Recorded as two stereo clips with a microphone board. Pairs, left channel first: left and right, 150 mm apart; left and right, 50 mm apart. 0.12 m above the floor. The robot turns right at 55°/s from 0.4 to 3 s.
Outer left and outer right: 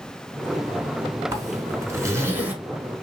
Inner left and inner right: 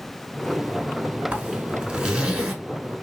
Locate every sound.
1.3 s a zipper: 20° right (ahead or behind), 0.7 m; by 2.5 s 10° right (ahead or behind), 0.7 m